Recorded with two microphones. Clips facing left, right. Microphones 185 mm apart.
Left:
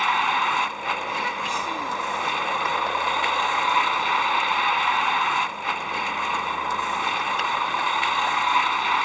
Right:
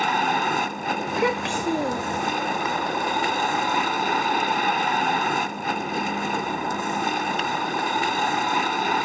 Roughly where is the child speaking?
Right.